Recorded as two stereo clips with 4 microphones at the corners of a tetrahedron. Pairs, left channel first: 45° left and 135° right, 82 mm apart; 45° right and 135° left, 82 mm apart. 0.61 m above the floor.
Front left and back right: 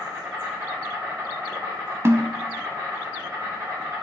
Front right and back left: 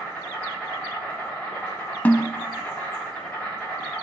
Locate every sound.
0.0 s an insect: 110° right, 1.7 m
2.0 s a snare drum: 100° right, 0.5 m